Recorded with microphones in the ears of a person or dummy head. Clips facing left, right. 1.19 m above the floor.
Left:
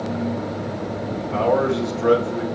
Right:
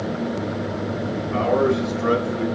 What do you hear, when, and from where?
1.3 s a man speaking: 65° left (ahead or behind), 4 m